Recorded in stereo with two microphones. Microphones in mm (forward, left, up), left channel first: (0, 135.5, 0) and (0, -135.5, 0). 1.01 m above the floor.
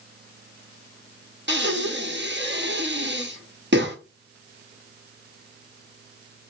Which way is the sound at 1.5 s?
40° right (ahead or behind).